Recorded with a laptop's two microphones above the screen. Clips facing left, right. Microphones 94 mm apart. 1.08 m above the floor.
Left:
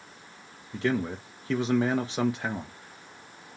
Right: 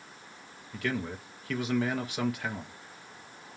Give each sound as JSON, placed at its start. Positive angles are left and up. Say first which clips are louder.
{"t": 0.7, "sound": "a man speaking", "louder": "left 5 dB", "side_deg": 30, "distance_m": 0.6}